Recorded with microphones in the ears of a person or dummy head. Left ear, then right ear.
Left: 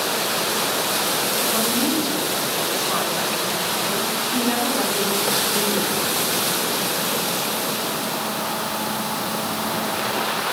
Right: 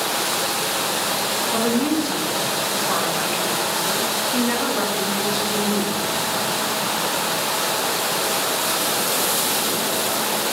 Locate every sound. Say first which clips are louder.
1.5 s a woman speaking: right 1 dB; 15° right (ahead or behind), 1.4 m